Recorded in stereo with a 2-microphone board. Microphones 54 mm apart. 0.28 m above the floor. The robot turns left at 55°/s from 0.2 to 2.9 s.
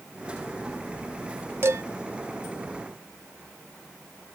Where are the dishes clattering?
50° right (ahead or behind), 1.2 m; by 1.8 s 55° right (ahead or behind), 1.2 m.